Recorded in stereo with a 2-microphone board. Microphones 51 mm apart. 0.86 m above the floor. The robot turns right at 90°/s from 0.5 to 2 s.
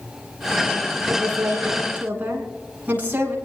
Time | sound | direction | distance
1.1 | a woman speaking | 115° right | 9.5 m